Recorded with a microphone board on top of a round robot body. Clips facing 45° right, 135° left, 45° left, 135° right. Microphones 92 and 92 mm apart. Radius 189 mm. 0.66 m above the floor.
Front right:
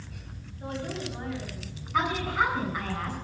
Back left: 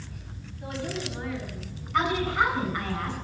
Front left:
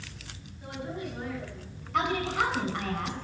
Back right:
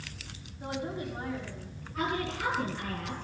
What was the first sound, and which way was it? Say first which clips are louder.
A woman speaking: back left 1 dB, back right 2 dB; 90° right.